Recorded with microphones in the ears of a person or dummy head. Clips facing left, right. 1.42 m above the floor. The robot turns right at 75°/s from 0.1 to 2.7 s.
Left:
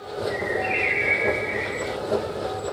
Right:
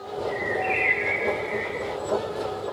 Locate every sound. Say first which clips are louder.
0.3 s a bird: left 1 dB; 20° right, 1.5 m; by 2.0 s 110° left, 1.5 m